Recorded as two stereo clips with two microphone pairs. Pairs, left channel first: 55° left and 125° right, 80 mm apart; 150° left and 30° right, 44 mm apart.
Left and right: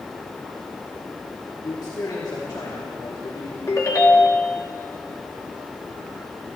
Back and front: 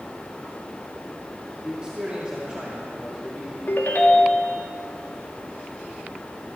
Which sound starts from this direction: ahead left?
A man speaking, at 1.6 s.